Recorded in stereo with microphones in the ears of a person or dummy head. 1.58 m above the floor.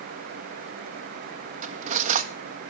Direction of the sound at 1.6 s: 45° right (ahead or behind).